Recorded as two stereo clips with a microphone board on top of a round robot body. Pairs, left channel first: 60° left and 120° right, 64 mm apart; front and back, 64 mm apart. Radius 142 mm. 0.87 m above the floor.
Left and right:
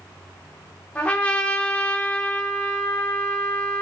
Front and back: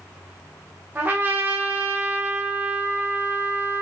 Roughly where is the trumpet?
Behind left.